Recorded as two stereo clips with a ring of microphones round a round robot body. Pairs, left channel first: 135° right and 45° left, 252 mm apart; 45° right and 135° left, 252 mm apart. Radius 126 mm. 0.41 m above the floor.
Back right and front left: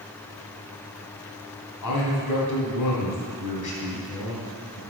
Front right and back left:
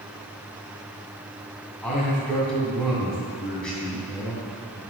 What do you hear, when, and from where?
1.8 s a man speaking: 130° right, 2.5 m